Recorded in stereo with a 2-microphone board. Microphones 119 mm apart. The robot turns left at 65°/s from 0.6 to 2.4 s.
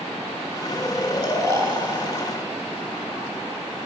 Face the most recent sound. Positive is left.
turn(degrees=-95)